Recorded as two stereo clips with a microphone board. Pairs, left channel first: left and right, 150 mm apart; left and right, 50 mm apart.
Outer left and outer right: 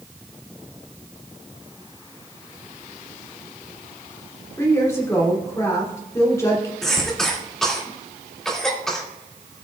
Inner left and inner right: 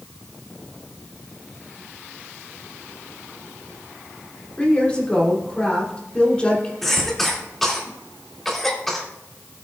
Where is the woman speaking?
20° left (ahead or behind), 3 m.